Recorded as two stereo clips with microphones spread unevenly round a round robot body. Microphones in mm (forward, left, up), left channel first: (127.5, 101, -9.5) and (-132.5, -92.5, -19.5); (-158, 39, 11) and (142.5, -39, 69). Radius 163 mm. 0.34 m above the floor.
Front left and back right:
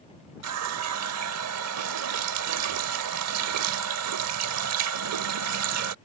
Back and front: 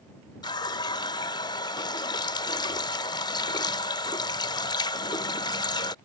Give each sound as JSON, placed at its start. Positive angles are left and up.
{"t": 0.4, "sound": "a running tap", "azimuth_deg": -135}